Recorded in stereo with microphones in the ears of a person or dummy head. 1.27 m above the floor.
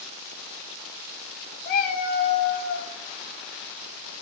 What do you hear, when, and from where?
1.6 s a cat meowing: 50° left (ahead or behind), 0.9 m